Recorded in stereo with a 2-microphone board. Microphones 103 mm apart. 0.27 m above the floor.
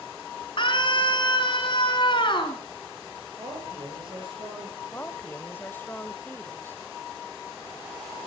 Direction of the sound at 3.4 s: 55° right (ahead or behind).